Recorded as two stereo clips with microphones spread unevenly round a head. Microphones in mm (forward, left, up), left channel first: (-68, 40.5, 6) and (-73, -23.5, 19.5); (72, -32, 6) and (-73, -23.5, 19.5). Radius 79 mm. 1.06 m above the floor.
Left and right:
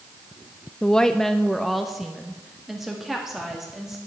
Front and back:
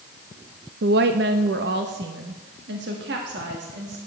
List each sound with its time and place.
0.8 s a woman speaking: 155° left, 0.6 m; by 4.0 s straight behind, 2 m